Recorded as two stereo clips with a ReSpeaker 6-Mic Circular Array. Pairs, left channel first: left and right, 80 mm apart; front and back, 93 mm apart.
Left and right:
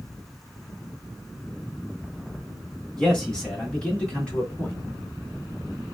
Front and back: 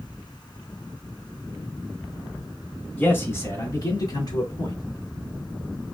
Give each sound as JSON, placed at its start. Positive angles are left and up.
{"t": 3.0, "sound": "a man speaking", "azimuth_deg": 25, "distance_m": 1.5}